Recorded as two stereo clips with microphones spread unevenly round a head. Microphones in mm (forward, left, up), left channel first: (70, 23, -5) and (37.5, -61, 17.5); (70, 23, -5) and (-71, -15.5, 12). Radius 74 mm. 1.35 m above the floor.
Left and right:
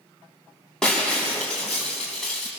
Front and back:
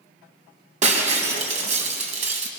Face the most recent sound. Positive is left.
turn(degrees=160)